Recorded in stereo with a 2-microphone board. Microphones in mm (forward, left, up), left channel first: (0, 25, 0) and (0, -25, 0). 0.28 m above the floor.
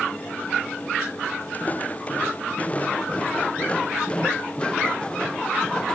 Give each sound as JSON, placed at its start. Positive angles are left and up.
{"t": 1.5, "sound": "footsteps", "side_deg": 35}